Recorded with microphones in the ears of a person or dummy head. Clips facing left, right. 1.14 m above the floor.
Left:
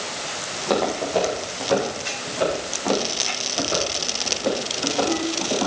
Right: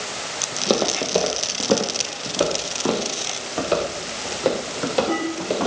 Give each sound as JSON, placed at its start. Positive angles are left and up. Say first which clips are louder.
{"t": 0.5, "sound": "footsteps", "louder": "right 1 dB", "side_deg": -40, "distance_m": 2.0}